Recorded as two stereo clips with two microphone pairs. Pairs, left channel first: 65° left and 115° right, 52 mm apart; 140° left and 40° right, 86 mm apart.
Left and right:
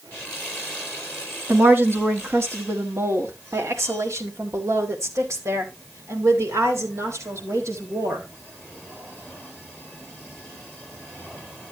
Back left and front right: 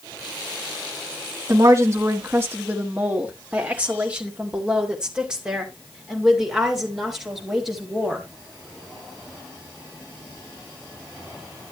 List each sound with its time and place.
1.5 s a woman speaking: 80° right, 1.3 m; by 8.2 s 125° right, 4 m